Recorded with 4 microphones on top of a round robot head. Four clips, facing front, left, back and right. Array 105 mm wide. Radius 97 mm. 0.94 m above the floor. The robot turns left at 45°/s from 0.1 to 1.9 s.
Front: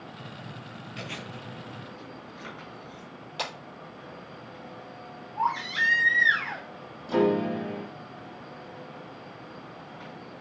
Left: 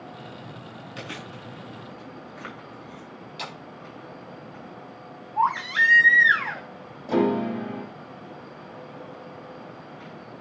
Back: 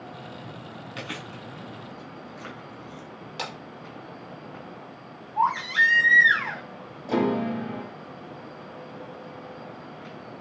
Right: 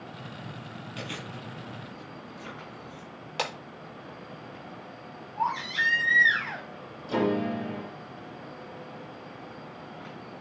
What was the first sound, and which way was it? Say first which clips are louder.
Chewing: left 1 dB, back 2 dB; 160° left.